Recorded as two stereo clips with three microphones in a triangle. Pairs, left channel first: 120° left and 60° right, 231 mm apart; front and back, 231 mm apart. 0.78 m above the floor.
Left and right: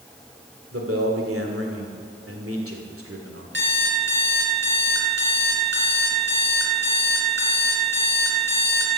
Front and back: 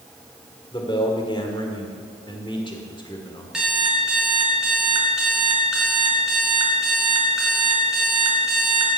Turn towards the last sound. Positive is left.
turn(degrees=-95)